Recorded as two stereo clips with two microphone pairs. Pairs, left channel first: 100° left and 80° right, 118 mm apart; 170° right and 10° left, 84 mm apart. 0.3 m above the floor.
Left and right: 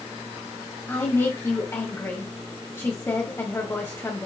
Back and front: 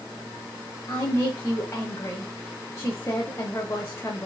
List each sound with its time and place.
0.9 s a woman speaking: 155° left, 1.6 m